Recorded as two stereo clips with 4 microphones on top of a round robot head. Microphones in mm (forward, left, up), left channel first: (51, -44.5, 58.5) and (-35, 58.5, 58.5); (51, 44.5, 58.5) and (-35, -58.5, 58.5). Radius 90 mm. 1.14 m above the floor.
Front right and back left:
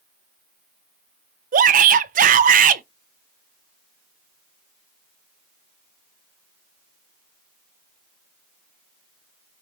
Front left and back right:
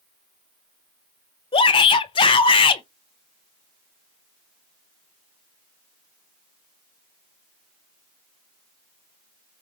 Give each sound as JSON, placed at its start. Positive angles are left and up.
{"t": 1.5, "sound": "a shout", "azimuth_deg": 105, "distance_m": 0.9}